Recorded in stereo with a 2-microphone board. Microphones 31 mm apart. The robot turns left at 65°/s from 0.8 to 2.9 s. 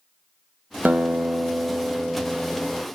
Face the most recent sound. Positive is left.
turn(degrees=150)